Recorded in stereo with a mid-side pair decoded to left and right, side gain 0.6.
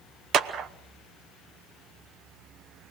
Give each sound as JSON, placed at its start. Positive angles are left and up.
{"t": 0.3, "sound": "a clap", "azimuth_deg": -50, "distance_m": 1.0}